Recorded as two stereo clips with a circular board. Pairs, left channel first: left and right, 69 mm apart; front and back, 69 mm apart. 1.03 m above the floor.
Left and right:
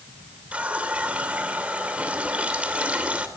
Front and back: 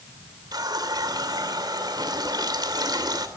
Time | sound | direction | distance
0.5 | a running tap | 160° right | 2.5 m